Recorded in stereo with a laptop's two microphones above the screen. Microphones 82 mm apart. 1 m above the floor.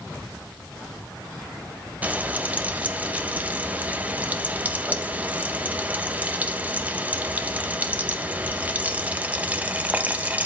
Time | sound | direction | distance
2.0 | frying | 20° right (ahead or behind) | 0.8 m